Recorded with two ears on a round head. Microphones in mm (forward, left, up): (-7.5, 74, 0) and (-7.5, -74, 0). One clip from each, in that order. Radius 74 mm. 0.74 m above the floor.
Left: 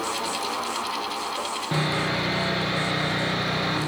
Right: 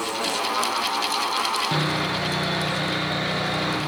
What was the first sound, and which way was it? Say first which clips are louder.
Sawing: right 1 dB; 20° right (ahead or behind).